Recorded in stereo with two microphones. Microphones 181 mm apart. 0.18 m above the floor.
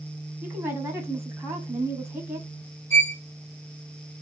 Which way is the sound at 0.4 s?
10° right (ahead or behind).